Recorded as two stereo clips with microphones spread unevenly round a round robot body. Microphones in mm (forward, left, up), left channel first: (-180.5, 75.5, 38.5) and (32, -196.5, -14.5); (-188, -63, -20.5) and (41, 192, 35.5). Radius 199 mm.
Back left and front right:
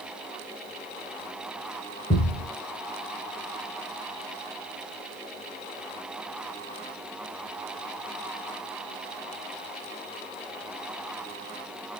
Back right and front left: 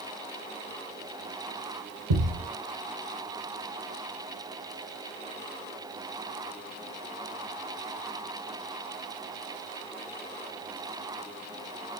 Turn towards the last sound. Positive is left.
turn(degrees=60)